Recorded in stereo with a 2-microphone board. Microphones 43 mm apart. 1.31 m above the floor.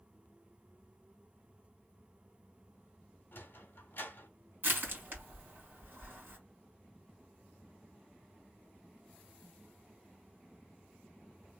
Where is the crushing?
50° right (ahead or behind), 2.5 m.